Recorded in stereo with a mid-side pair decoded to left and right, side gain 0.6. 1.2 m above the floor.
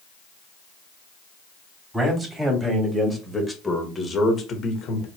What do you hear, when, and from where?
1.9 s a man speaking: 15° right, 3.5 m; by 5.1 s 55° left, 1.9 m